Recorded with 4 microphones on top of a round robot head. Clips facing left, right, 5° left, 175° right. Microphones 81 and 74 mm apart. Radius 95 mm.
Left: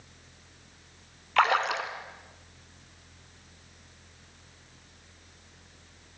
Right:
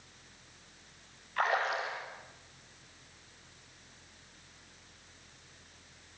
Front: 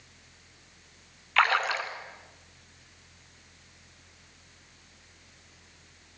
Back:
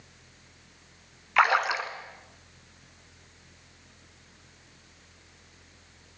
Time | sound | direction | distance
1.4 | a splash | 110° left | 1.6 m